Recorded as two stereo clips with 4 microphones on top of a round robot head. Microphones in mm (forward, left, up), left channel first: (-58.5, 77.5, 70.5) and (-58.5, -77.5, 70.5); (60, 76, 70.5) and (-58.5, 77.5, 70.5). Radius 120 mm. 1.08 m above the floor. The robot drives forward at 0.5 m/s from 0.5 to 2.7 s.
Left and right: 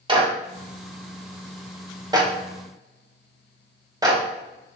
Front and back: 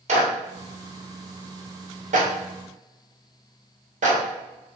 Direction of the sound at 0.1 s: 150° right.